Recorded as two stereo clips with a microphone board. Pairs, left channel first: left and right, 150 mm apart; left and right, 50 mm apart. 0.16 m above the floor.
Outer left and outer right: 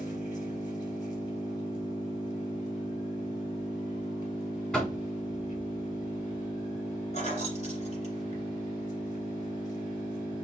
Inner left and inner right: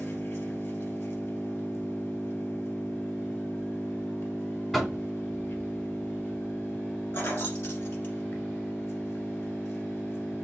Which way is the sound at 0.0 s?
55° left (ahead or behind).